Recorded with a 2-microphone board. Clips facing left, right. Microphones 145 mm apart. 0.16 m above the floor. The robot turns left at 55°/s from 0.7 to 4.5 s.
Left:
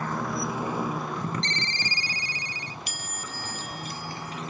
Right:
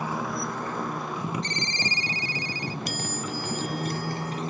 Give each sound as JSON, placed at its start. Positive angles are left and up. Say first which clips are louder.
{"t": 0.0, "sound": "a motorcycle", "louder": "even", "side_deg": -10}
{"t": 1.4, "sound": "a ringtone", "louder": "right 2 dB", "azimuth_deg": -15}
{"t": 2.9, "sound": "a chime", "louder": "right 8 dB", "azimuth_deg": -130}